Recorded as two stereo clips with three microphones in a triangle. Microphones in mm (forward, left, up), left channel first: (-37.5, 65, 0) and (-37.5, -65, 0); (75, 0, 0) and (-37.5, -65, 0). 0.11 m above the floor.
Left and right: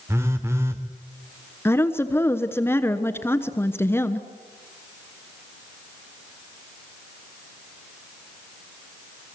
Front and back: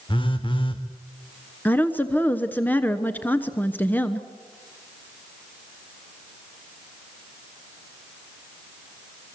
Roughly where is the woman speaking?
Left.